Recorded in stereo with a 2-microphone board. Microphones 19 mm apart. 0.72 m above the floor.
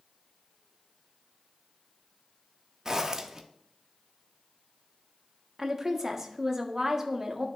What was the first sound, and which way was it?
A zipper, 25° right (ahead or behind).